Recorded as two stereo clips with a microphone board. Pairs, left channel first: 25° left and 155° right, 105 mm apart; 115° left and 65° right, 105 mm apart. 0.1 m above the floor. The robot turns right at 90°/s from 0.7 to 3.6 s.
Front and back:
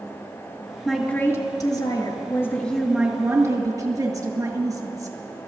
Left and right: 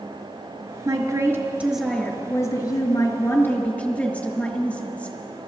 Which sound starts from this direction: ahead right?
A woman speaking, at 0.8 s.